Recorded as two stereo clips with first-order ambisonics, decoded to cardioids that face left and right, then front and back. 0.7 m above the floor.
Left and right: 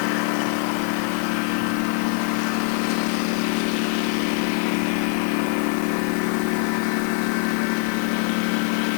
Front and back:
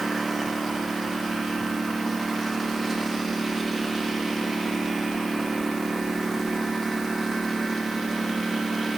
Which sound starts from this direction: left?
A lawn mower, at 0.0 s.